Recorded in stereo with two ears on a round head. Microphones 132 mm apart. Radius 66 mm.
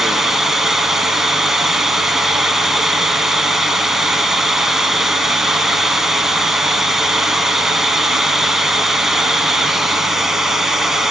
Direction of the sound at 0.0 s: 5° right (ahead or behind).